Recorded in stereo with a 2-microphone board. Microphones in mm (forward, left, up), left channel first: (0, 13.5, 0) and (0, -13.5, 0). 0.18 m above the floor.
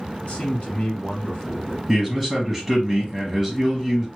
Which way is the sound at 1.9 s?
5° left (ahead or behind).